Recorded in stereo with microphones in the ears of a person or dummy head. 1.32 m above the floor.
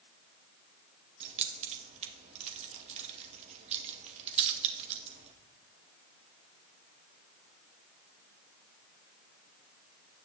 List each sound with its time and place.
1.2 s keys jangling: 35° right (ahead or behind), 1.1 m